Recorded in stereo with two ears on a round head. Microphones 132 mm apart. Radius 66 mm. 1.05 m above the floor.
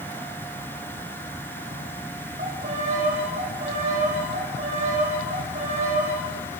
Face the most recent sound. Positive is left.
turn(degrees=-55)  # may be behind; listen again after turning